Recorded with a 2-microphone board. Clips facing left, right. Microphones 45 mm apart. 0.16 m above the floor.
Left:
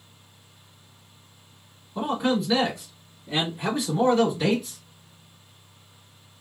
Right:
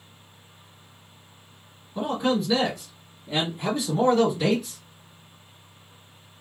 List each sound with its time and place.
1.9 s a man speaking: 5° left (ahead or behind), 1.7 m; by 4.8 s centre (ahead or behind), 1.7 m